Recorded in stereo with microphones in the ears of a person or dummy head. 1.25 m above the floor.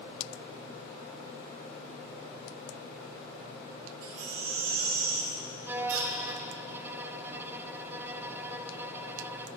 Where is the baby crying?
80° right, 3 m.